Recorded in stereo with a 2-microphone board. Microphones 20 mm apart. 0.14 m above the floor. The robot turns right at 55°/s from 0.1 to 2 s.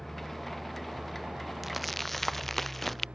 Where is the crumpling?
10° right (ahead or behind); by 3.1 s 10° left (ahead or behind).